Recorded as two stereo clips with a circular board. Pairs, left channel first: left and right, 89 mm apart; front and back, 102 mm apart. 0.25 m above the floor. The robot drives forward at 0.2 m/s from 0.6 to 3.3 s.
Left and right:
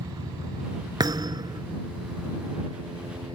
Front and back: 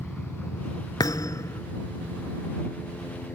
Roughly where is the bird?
I don't hear a bird.